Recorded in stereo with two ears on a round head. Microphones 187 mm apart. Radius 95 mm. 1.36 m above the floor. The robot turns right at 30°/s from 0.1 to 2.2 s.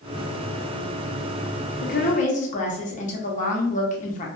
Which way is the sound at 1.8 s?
45° left (ahead or behind).